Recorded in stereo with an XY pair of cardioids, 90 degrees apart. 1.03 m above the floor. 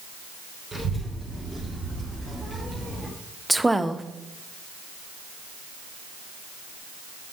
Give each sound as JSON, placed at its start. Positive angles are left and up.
{"t": 0.7, "sound": "a child speaking", "azimuth_deg": -25, "distance_m": 3.0}
{"t": 3.5, "sound": "a woman speaking", "azimuth_deg": -10, "distance_m": 0.8}